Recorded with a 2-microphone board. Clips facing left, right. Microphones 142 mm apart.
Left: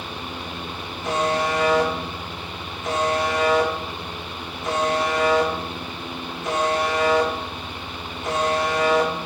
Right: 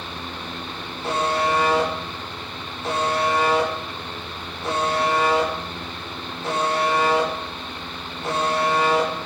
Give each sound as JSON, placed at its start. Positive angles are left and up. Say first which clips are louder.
{"t": 1.0, "sound": "a buzzer", "louder": "even", "side_deg": -35, "distance_m": 7.5}